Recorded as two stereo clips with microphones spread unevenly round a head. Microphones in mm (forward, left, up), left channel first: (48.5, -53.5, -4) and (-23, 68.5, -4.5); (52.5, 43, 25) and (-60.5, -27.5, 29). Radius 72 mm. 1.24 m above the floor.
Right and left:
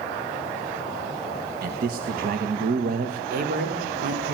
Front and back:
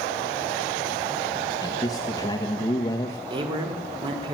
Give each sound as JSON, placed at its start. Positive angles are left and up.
{"t": 1.6, "sound": "a man speaking", "azimuth_deg": 95, "distance_m": 1.3}
{"t": 3.3, "sound": "a man speaking", "azimuth_deg": 155, "distance_m": 4.0}